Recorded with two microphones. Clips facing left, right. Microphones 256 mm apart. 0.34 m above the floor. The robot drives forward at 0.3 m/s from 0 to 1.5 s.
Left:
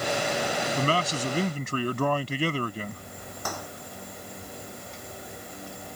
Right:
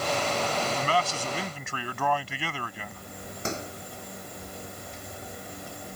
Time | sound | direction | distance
0.8 | a man speaking | 40° left (ahead or behind) | ?
3.5 | a microwave | 25° right (ahead or behind) | ?